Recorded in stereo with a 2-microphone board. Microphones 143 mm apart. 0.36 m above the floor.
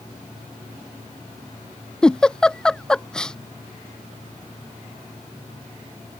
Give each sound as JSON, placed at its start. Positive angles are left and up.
{"t": 2.0, "sound": "a giggle", "side_deg": 5}